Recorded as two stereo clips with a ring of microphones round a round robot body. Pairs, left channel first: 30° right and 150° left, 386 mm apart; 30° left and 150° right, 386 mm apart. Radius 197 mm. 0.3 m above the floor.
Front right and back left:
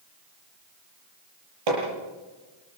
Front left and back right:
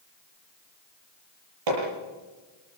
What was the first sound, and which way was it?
Hammering, 175° left.